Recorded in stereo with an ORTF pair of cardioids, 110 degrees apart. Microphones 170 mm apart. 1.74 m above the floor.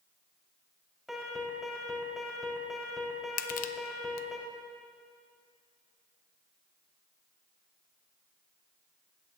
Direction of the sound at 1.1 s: Straight ahead.